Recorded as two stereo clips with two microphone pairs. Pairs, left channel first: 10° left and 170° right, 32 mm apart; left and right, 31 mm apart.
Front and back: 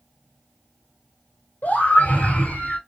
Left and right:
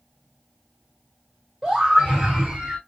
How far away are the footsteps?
I don't hear footsteps.